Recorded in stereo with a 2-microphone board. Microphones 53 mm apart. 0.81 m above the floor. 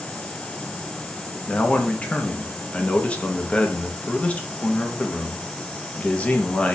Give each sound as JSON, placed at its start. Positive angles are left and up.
{"t": 1.5, "sound": "a man speaking", "side_deg": 25, "distance_m": 0.6}